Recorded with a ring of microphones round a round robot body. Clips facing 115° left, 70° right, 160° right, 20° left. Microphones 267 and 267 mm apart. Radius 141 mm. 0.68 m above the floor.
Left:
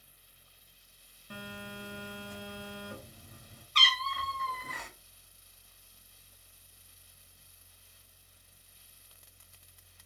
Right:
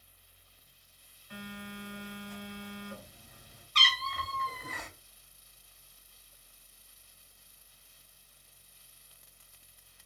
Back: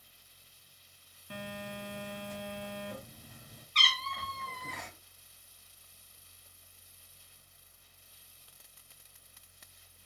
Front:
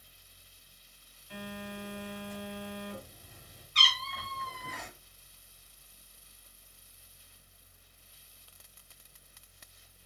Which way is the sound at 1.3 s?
160° left.